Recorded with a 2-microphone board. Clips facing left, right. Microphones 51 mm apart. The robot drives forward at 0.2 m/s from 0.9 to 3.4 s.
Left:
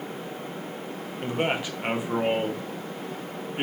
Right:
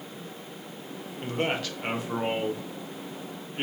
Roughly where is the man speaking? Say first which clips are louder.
Left 2 dB; centre.